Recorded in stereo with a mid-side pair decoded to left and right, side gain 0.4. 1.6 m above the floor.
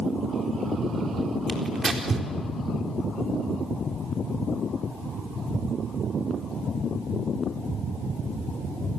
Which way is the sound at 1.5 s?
30° right.